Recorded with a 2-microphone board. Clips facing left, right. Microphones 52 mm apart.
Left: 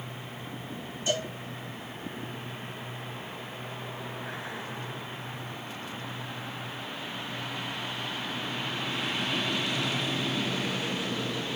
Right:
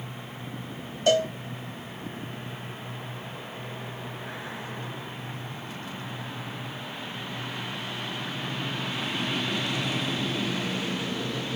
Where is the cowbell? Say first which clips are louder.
Right 9 dB; 65° right (ahead or behind), 0.9 m.